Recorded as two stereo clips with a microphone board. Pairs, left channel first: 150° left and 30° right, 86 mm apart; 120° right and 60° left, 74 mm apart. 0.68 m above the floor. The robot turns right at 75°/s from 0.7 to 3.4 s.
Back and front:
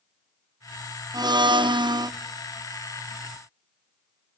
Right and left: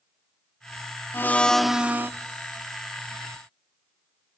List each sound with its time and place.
1.1 s a blender: 65° right, 0.5 m; by 2.1 s 10° left, 0.5 m